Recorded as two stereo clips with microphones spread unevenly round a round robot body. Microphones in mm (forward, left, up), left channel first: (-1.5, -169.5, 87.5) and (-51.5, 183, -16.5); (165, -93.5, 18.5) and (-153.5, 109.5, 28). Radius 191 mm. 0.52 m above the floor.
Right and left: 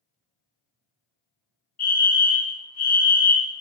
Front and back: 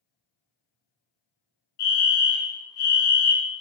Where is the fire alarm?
5° right, 2.5 m.